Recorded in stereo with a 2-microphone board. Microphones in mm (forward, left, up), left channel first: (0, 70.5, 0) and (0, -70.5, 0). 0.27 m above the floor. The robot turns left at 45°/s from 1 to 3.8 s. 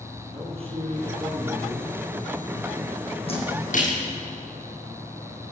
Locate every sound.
0.3 s a man speaking: 135° right, 7 m; by 2.0 s straight behind, 7 m
3.3 s a splash: 45° left (ahead or behind), 6 m; by 3.9 s 65° left (ahead or behind), 6 m